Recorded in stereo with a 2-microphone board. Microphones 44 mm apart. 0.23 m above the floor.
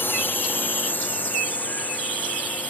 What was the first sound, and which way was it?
A drone, 55° left (ahead or behind).